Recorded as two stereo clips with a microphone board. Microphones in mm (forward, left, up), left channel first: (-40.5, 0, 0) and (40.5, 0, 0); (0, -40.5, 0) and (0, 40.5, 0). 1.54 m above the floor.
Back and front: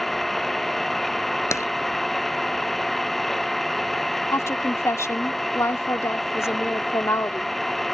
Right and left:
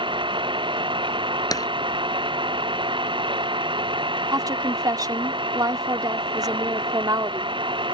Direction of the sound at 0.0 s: 95° left.